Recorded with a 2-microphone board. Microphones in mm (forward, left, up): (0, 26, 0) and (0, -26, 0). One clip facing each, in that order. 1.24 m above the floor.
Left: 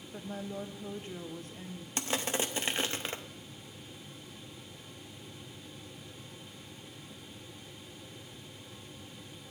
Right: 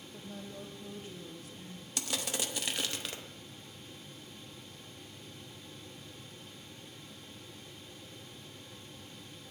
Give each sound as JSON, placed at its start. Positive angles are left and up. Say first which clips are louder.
{"t": 0.1, "sound": "a woman speaking", "louder": "left 7 dB", "side_deg": 50, "distance_m": 0.8}
{"t": 2.0, "sound": "crushing", "louder": "left 4 dB", "side_deg": 35, "distance_m": 0.6}